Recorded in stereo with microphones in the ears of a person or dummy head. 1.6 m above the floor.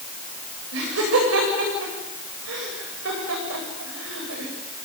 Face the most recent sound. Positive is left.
turn(degrees=-80)